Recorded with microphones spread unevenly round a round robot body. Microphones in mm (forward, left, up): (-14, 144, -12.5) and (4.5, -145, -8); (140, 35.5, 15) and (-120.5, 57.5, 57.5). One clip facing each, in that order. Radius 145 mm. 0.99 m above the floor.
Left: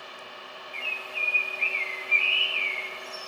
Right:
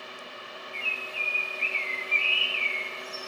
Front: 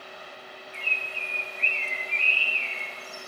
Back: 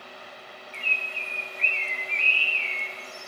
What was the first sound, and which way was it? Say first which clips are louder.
A bird: left 1 dB, even; 105° left.